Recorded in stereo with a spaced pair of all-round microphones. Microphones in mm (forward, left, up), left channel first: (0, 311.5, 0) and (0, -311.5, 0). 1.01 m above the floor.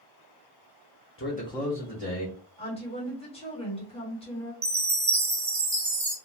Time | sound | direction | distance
1.2 | a man speaking | 20° left (ahead or behind) | 0.8 m
2.6 | a woman speaking | 10° left (ahead or behind) | 1.4 m
4.6 | a chime | 35° right (ahead or behind) | 0.7 m